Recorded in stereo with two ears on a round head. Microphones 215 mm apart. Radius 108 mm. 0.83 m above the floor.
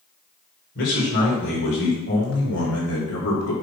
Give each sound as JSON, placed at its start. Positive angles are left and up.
{"t": 0.8, "sound": "a man speaking", "side_deg": 50, "distance_m": 4.5}